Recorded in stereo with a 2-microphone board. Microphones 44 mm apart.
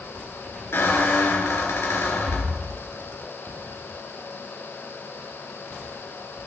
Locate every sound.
0.7 s a squeak: 80° left, 3 m